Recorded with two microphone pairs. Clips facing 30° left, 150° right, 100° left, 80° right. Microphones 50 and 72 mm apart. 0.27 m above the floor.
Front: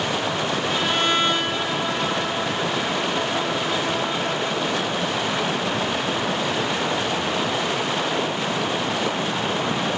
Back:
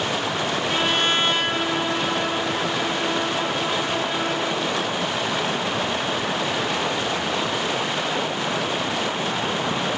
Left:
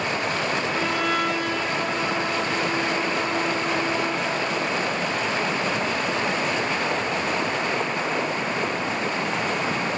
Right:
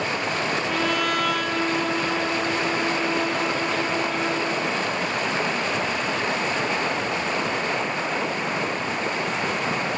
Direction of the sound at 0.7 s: 90° right.